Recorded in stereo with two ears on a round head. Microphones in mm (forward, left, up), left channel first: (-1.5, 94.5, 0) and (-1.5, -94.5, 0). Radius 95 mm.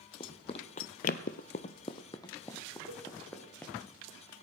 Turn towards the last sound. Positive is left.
turn(degrees=-85)